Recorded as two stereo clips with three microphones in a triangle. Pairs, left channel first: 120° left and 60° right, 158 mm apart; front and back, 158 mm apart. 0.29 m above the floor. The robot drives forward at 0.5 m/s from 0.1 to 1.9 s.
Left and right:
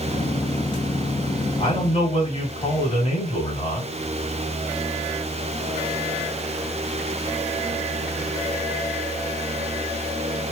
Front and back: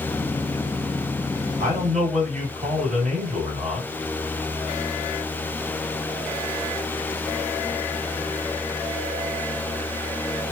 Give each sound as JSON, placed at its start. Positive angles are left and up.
{"t": 1.6, "sound": "a man speaking", "azimuth_deg": 160, "distance_m": 2.5}